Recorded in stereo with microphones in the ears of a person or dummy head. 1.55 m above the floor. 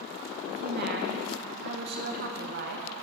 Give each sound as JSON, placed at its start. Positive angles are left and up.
{"t": 0.5, "sound": "a woman speaking", "side_deg": -55, "distance_m": 0.9}